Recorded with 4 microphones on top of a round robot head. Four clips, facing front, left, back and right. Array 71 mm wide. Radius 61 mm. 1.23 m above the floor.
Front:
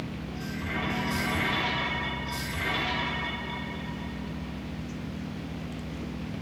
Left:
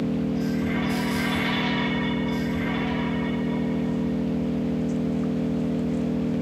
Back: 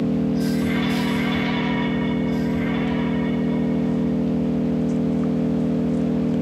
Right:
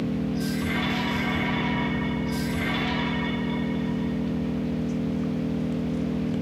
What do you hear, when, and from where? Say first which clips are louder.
0.0 s an engine running: left 2 dB, back 16 dB; 160° left